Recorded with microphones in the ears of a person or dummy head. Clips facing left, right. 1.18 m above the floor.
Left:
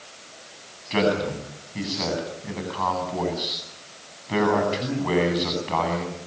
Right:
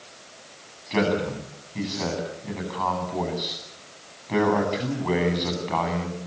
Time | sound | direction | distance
0.9 | a man speaking | 5° left (ahead or behind) | 9.5 m